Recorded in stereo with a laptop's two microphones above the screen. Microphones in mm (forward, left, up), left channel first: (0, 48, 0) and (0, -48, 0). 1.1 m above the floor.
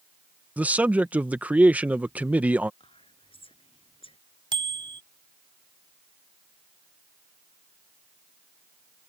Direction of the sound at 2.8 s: 70° left (ahead or behind).